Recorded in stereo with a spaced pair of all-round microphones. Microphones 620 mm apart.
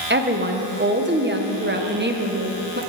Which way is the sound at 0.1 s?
15° right (ahead or behind).